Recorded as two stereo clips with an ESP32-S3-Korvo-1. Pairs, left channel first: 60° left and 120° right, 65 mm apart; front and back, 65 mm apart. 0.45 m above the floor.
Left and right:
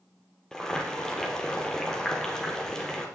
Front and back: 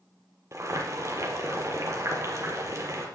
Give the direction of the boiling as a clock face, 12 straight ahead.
7 o'clock.